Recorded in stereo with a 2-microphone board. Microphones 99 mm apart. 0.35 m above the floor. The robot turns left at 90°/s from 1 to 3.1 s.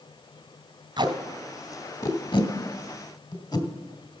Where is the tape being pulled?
50° right (ahead or behind), 1.8 m; by 3.7 s 40° left (ahead or behind), 1.8 m.